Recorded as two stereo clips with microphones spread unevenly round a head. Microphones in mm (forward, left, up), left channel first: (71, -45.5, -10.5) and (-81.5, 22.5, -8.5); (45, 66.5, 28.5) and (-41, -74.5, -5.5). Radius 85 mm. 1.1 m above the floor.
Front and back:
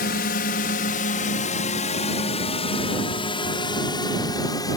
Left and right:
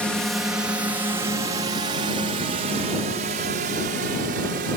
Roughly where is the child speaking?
I don't hear a child speaking.